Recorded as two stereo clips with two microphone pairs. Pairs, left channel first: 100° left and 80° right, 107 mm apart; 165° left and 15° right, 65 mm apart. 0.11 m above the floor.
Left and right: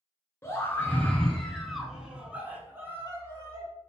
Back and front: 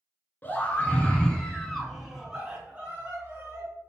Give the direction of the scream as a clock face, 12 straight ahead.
7 o'clock.